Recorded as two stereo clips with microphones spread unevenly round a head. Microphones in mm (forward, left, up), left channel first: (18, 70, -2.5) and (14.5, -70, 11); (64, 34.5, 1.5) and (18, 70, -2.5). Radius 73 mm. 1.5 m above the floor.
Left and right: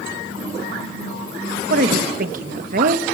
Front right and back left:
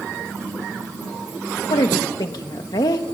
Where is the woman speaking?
65° right, 1.4 m.